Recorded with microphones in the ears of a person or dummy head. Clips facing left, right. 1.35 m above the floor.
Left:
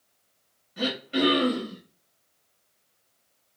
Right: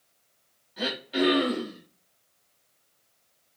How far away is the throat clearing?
About 2.5 m.